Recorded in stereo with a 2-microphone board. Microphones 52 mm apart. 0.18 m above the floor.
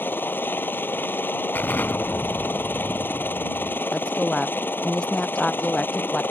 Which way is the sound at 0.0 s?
40° left (ahead or behind).